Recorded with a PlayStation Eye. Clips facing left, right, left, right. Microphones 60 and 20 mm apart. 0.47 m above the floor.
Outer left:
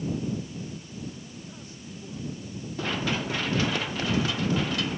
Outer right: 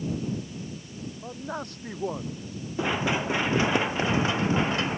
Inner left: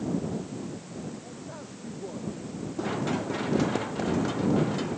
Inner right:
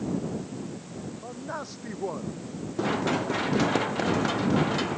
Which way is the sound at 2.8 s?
20° right (ahead or behind).